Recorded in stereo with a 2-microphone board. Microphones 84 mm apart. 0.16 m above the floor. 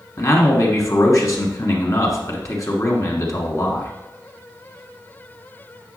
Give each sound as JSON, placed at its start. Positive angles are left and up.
{"t": 0.2, "sound": "a man speaking", "side_deg": 45, "distance_m": 1.5}